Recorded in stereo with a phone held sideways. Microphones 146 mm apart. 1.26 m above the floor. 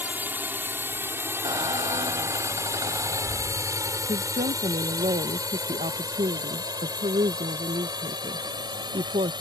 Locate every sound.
0.0 s a drone: 15° right (ahead or behind); by 9.4 s 30° right (ahead or behind)
1.4 s a squeak: 35° right (ahead or behind)
4.1 s a woman speaking: 55° right (ahead or behind)